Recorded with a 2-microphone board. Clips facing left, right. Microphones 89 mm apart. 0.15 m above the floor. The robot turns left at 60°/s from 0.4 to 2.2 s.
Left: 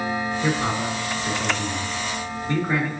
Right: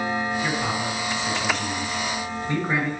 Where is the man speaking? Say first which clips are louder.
Left 2 dB; 30° left (ahead or behind), 1.6 m; by 2.9 s 10° right (ahead or behind), 1.6 m.